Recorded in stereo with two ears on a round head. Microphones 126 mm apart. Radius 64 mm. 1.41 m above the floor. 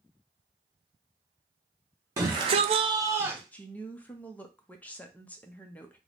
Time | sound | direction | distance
2.2 | a shout | 20° right (ahead or behind) | 0.9 m
3.5 | a woman speaking | 10° left (ahead or behind) | 0.6 m